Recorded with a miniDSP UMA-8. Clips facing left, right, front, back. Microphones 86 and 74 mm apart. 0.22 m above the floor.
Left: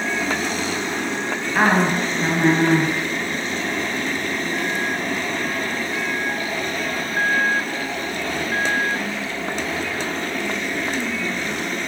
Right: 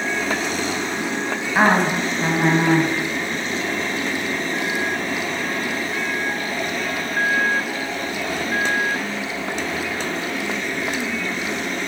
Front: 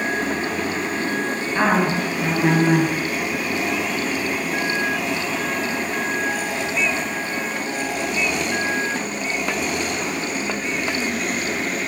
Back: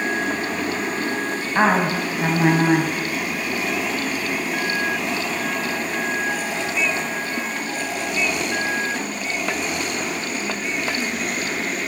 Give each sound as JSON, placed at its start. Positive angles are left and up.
{"t": 1.6, "sound": "a woman speaking", "azimuth_deg": -155, "distance_m": 1.6}